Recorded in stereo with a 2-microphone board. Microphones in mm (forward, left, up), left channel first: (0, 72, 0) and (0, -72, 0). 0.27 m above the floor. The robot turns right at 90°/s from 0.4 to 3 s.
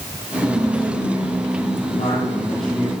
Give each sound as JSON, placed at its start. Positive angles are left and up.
{"t": 0.4, "sound": "whispering", "azimuth_deg": -30, "distance_m": 4.0}
{"t": 1.9, "sound": "a man speaking", "azimuth_deg": 110, "distance_m": 7.5}